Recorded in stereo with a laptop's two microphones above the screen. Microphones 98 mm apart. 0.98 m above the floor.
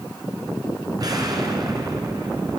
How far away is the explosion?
About 2.5 m.